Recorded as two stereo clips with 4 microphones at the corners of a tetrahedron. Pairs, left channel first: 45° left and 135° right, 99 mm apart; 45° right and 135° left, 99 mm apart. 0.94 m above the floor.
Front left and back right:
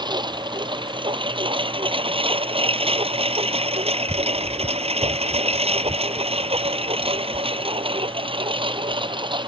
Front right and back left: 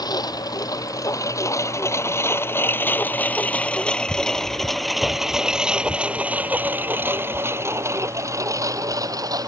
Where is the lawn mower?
95° right; by 9.5 s 175° right.